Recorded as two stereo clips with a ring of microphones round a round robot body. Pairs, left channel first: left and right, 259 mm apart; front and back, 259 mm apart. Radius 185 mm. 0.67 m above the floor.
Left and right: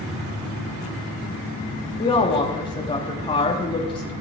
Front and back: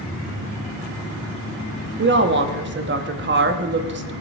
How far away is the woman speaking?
About 1.0 m.